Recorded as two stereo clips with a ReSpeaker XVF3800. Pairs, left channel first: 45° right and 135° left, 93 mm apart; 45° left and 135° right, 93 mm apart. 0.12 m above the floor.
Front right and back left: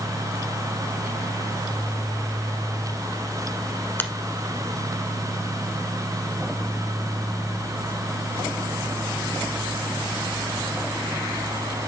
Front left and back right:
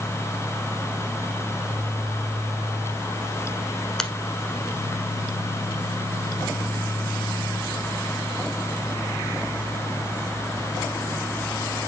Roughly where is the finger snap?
Ahead right.